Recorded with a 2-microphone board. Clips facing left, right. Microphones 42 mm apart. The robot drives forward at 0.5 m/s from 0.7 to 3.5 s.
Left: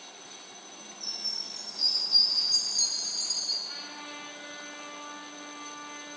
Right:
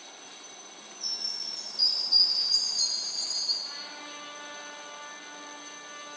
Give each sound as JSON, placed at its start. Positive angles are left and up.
{"t": 1.0, "sound": "a chime", "side_deg": 50, "distance_m": 4.0}
{"t": 3.6, "sound": "a trumpet", "side_deg": -15, "distance_m": 5.5}